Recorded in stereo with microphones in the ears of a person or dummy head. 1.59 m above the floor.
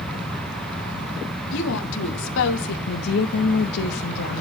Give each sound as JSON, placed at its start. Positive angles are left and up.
{"t": 1.5, "sound": "a woman speaking", "side_deg": 65, "distance_m": 2.0}
{"t": 2.9, "sound": "a woman speaking", "side_deg": 55, "distance_m": 1.7}